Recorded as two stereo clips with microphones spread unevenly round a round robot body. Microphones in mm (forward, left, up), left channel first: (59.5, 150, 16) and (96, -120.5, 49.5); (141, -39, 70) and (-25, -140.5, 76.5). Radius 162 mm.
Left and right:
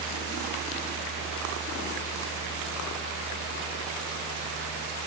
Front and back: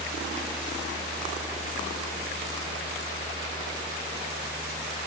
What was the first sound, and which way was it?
Only background noise.